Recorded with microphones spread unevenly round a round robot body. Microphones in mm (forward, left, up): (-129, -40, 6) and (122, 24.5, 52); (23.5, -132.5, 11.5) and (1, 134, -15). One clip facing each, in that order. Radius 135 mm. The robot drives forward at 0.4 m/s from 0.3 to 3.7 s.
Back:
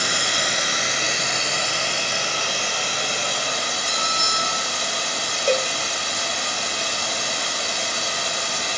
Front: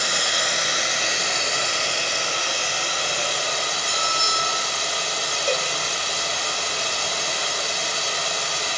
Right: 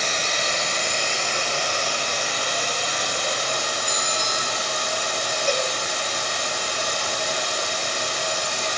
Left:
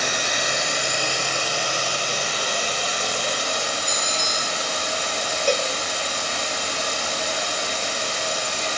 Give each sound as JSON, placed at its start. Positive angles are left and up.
{"t": 0.0, "sound": "running water", "azimuth_deg": 175, "distance_m": 1.3}
{"t": 3.9, "sound": "a bell", "azimuth_deg": 140, "distance_m": 2.5}
{"t": 5.5, "sound": "a cowbell", "azimuth_deg": 140, "distance_m": 0.8}